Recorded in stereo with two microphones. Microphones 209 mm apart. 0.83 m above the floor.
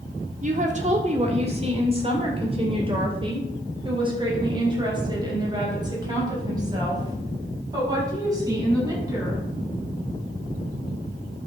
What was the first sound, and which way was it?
A woman speaking, 35° right (ahead or behind).